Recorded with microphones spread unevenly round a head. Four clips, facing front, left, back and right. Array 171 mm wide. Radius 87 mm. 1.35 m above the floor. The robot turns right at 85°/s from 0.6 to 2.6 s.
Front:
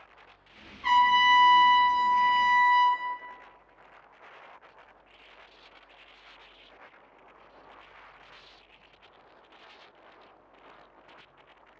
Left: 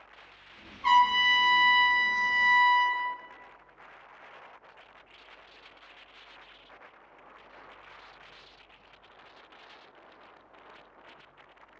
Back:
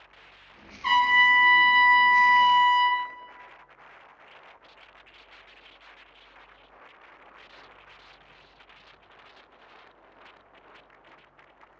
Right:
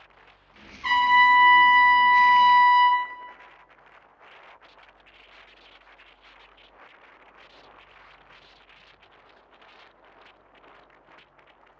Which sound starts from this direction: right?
A trumpet, at 0.8 s.